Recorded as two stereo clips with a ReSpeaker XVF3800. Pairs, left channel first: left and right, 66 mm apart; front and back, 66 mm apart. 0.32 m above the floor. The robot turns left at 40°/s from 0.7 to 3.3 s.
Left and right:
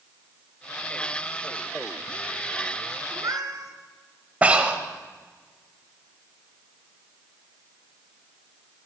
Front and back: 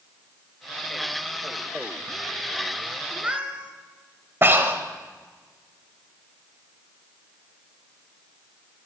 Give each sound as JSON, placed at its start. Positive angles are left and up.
{"t": 3.1, "sound": "a cat meowing", "azimuth_deg": -100, "distance_m": 1.4}
{"t": 4.4, "sound": "breathing", "azimuth_deg": -145, "distance_m": 1.1}